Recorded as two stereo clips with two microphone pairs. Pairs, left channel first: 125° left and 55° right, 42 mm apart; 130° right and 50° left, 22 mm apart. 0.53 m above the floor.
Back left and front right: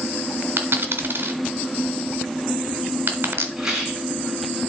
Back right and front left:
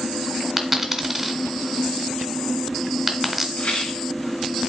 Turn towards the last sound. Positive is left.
turn(degrees=-125)